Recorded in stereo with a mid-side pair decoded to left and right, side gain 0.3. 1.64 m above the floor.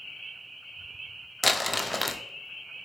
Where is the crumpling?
15° left, 0.9 m.